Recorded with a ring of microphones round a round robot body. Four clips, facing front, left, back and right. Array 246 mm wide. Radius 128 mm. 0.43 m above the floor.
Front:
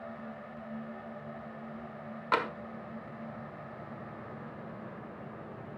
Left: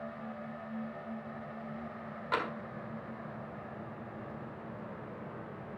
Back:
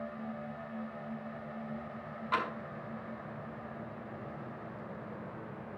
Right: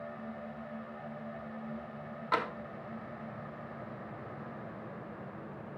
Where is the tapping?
5° right, 1.7 m.